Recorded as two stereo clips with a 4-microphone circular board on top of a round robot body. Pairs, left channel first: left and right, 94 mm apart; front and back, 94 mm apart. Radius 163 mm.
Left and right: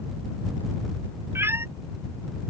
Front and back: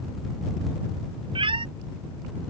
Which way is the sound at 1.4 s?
155° right.